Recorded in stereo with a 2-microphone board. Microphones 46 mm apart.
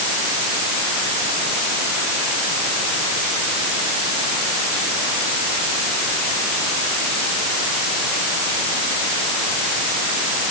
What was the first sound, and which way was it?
Only background noise.